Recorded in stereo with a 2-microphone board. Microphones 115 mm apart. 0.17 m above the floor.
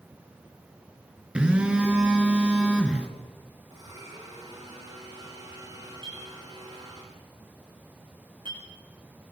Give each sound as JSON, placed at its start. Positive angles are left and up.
{"t": 1.4, "sound": "a phone buzzing", "side_deg": -10, "distance_m": 3.0}
{"t": 3.7, "sound": "a blender", "side_deg": -40, "distance_m": 10.0}
{"t": 6.0, "sound": "a clink", "side_deg": -50, "distance_m": 9.0}